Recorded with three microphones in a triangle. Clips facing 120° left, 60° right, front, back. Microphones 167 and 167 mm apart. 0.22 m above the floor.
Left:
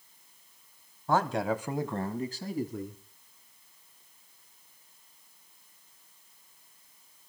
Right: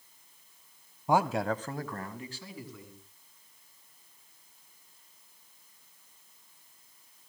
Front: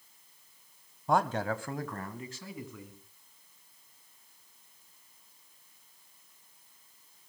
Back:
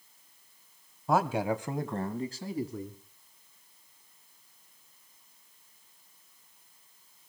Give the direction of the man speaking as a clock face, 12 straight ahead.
3 o'clock.